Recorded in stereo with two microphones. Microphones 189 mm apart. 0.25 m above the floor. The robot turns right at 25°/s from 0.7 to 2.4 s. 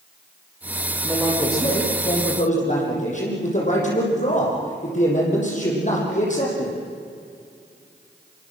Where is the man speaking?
5° left, 7.5 m; by 6.8 s 40° left, 7.5 m.